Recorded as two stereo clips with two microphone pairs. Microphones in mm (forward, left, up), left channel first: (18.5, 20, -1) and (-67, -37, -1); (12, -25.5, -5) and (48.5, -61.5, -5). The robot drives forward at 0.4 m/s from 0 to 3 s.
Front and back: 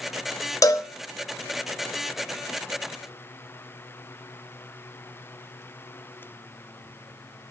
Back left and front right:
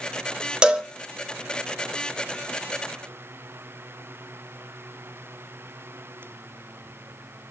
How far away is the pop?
I don't hear a pop.